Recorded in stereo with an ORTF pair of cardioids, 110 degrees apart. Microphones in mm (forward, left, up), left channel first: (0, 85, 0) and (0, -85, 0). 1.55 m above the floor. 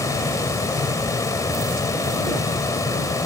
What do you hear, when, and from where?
0.0 s a fan: 20° left